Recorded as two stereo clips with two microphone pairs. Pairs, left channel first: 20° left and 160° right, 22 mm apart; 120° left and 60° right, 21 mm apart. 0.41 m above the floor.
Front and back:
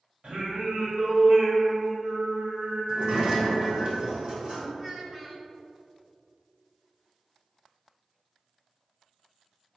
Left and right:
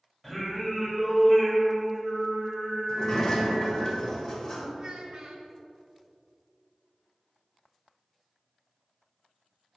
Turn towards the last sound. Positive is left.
turn(degrees=-95)